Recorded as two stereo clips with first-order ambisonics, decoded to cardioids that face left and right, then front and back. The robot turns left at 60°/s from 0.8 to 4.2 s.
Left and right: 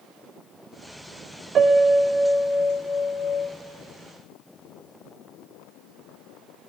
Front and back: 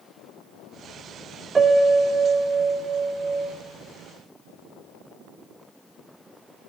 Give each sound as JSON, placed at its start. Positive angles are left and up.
{"t": 1.6, "sound": "a piano", "azimuth_deg": -120, "distance_m": 0.5}